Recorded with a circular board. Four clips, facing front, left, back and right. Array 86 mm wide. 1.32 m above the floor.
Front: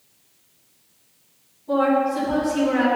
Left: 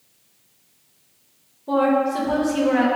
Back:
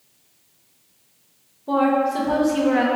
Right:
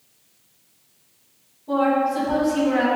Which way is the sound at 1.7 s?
150° left.